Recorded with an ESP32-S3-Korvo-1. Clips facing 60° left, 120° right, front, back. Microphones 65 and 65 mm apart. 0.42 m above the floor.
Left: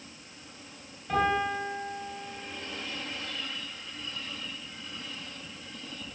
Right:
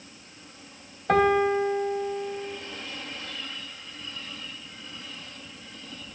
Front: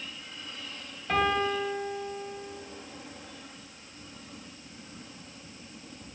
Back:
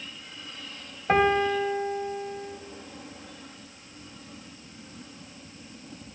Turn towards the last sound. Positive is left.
turn(degrees=-135)